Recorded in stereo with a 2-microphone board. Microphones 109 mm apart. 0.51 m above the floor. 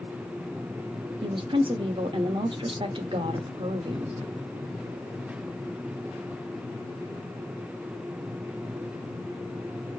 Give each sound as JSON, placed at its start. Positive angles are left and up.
{"t": 1.2, "sound": "a woman speaking", "side_deg": -50, "distance_m": 0.9}